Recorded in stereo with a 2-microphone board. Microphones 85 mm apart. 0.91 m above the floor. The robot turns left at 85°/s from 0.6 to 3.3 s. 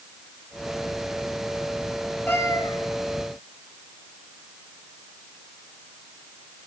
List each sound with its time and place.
2.3 s a cat meowing: 155° left, 4 m; by 2.8 s 115° left, 4 m